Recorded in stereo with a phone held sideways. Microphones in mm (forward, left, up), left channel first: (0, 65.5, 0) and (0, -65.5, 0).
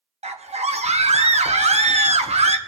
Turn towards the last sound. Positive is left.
turn(degrees=-50)  # may be behind; listen again after turning